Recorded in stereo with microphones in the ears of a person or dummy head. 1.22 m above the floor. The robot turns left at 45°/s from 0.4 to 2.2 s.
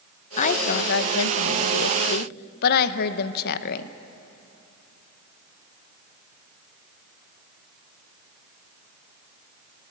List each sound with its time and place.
0.4 s a woman speaking: 140° left, 0.8 m; by 3.9 s 55° left, 0.8 m